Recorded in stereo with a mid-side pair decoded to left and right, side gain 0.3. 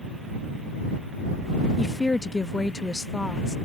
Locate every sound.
1.8 s a woman speaking: 25° left